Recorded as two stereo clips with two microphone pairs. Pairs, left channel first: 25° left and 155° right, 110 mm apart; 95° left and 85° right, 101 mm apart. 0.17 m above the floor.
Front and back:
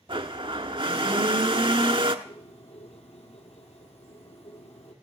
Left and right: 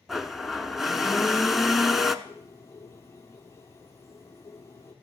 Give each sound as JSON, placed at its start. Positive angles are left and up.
{"t": 0.1, "sound": "a blender", "azimuth_deg": -170, "distance_m": 0.7}
{"t": 2.2, "sound": "a bird", "azimuth_deg": 30, "distance_m": 1.6}